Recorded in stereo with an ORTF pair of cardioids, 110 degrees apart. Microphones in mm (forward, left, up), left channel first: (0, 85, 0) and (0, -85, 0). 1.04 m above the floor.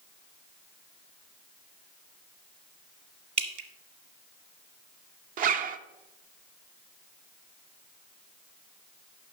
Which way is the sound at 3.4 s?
50° right.